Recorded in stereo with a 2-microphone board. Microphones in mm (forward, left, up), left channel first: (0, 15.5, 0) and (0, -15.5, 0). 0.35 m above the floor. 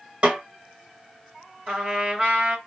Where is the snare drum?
45° right (ahead or behind), 1.9 m.